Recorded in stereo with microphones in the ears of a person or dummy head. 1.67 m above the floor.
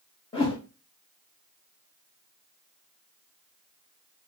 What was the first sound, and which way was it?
A whoosh, 30° left (ahead or behind).